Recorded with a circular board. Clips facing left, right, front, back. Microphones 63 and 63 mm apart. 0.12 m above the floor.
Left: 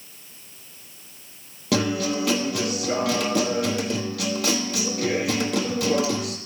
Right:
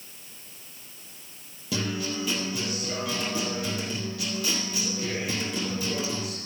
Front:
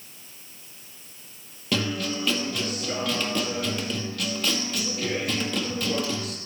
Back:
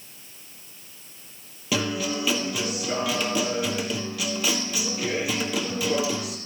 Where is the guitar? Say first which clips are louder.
Left 7 dB, back 1 dB; 95° left, 1.5 m.